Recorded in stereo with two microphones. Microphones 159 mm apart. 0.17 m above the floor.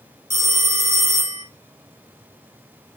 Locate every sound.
0.3 s a phone ringing: 45° right (ahead or behind), 1.5 m